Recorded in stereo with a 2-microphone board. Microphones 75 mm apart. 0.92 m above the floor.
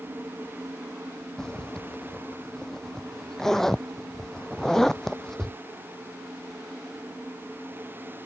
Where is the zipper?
5° left (ahead or behind).